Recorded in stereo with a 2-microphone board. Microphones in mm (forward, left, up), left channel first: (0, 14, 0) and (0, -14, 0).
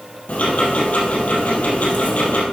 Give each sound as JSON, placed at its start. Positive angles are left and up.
{"t": 0.3, "sound": "ticking", "side_deg": 55, "distance_m": 2.5}